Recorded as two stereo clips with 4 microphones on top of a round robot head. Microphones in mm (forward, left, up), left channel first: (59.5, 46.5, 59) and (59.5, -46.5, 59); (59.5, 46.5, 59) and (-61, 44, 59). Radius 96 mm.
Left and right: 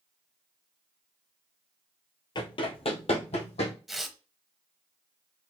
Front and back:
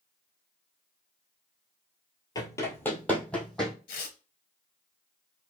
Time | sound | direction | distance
2.4 | running footsteps | 60° left | 1.0 m
3.9 | tearing paper | 5° right | 0.8 m